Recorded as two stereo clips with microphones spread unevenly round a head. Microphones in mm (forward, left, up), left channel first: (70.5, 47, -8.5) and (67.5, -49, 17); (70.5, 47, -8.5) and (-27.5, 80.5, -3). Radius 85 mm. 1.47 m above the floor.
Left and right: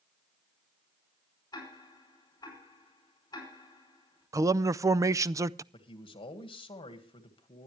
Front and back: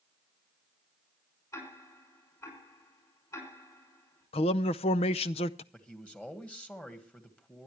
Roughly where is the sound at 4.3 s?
Ahead right.